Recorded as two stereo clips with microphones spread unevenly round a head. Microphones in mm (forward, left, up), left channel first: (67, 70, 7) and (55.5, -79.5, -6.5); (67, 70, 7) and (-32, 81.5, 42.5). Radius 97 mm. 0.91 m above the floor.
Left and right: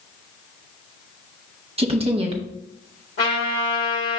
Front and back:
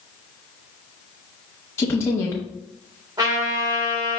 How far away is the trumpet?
About 2.5 m.